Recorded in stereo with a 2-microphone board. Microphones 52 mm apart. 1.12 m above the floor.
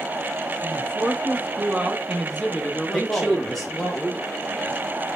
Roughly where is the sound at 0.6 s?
Right.